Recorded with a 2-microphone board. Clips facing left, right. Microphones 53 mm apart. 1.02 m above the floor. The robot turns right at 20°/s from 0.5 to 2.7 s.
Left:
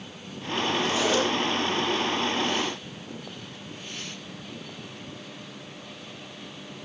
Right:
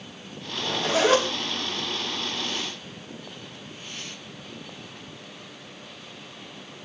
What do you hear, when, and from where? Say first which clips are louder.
0.6 s a zipper: right 2 dB; 75° right (ahead or behind), 6.5 m; by 1.2 s 90° right, 6.5 m